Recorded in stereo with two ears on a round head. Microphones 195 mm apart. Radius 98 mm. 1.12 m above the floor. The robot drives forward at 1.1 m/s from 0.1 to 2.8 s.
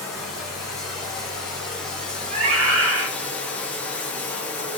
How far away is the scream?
About 3.5 m.